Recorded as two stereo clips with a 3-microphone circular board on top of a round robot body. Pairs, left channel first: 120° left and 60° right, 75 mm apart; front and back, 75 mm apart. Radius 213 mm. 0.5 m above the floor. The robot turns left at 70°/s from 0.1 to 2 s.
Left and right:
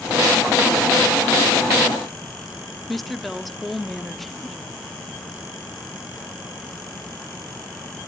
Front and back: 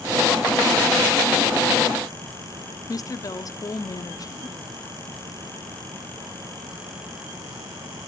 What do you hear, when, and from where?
2.9 s a woman speaking: 30° left, 1.6 m